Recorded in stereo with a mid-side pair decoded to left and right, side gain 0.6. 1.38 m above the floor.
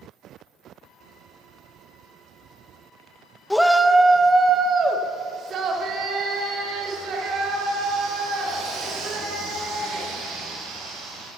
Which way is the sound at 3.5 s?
10° left.